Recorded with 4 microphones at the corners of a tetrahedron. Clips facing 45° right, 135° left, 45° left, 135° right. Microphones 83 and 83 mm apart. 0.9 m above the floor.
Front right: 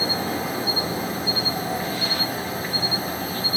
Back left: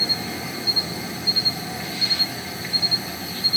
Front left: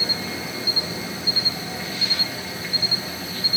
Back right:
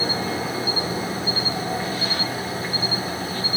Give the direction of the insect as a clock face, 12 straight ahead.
3 o'clock.